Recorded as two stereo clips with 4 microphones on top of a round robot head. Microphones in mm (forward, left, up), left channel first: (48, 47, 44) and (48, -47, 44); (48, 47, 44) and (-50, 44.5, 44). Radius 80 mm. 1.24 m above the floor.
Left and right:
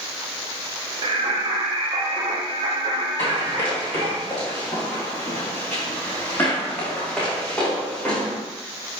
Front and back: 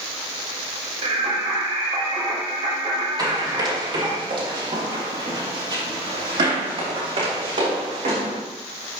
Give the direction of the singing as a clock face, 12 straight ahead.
5 o'clock.